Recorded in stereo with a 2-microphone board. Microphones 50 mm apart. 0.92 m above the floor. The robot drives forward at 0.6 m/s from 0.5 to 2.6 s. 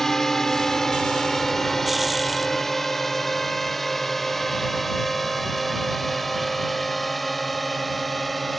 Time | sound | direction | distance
0.0 | a drone | 10° left (ahead or behind) | ?